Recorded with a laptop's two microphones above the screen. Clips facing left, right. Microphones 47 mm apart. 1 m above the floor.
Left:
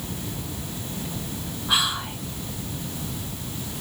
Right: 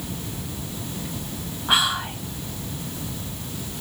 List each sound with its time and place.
1.7 s whispering: 30° right (ahead or behind), 1.0 m